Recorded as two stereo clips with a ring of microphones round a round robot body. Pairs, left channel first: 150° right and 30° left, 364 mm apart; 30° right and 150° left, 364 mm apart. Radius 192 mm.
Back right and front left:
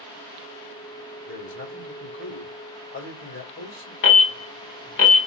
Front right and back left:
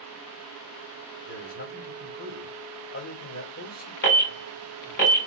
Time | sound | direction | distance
1.3 | a man speaking | 95° right | 3 m
4.0 | an alarm | 90° right | 3 m